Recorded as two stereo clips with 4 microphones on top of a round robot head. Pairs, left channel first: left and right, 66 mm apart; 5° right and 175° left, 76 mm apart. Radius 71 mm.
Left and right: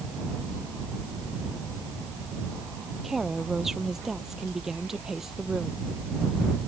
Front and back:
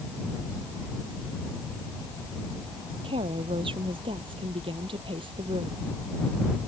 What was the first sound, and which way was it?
A woman speaking, 175° right.